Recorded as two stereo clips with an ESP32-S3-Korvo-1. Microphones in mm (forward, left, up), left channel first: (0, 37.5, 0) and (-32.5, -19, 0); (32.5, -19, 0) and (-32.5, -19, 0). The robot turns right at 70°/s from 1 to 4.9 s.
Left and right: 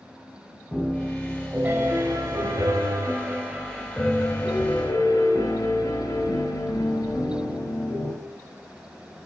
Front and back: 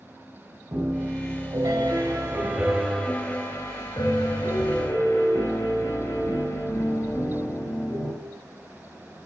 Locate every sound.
0.7 s a piano: 135° left, 4.5 m; by 8.1 s 50° left, 4.5 m